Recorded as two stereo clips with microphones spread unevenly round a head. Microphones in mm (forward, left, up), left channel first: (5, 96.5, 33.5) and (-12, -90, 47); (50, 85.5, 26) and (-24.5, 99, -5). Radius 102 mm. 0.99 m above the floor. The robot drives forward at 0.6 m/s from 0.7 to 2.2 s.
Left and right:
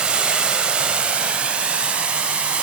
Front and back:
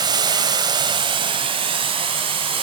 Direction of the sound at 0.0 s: 170° right.